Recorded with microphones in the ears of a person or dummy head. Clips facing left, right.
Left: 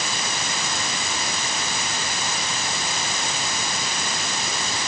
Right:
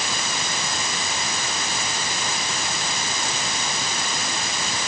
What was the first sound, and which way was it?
Only background noise.